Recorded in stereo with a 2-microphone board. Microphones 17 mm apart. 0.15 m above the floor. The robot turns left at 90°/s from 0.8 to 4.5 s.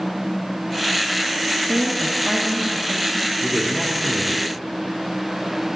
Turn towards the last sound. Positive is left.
turn(degrees=-45)  # may be behind; listen again after turning